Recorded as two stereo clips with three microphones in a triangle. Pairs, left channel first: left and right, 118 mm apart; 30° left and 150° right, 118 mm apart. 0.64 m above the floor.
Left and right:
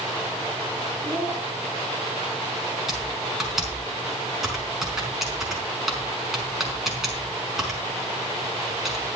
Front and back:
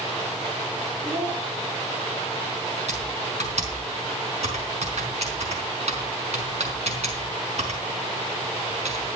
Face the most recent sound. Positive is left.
turn(degrees=-175)